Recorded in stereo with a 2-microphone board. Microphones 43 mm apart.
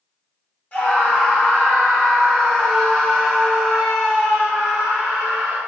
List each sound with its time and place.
0.7 s a scream: 40° left (ahead or behind), 2.0 m; by 5.6 s 25° right (ahead or behind), 2.5 m